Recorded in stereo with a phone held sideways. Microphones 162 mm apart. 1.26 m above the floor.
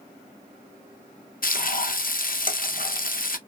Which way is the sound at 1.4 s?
65° left (ahead or behind).